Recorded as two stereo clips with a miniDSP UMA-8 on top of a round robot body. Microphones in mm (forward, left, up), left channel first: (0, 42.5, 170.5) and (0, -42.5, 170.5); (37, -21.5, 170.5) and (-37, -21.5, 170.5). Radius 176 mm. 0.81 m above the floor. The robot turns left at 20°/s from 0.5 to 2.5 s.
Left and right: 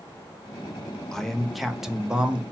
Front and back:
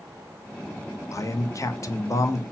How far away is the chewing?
No chewing in this recording.